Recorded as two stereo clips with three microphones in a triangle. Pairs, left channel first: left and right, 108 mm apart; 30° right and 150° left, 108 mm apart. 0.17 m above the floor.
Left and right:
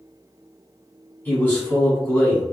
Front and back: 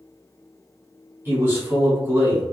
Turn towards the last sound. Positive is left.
turn(degrees=130)